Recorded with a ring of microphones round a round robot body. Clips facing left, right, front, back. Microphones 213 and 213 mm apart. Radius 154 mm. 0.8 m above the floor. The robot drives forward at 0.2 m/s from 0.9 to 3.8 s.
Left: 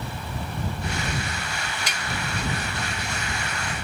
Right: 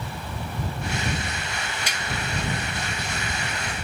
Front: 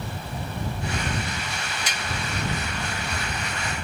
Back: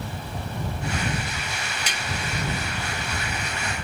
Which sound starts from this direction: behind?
Tapping, at 1.9 s.